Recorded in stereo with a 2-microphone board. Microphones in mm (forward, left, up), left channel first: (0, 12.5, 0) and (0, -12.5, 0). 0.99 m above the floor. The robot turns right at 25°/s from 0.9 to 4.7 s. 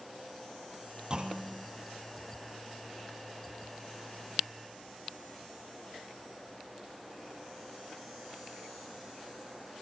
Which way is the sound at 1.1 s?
35° right (ahead or behind).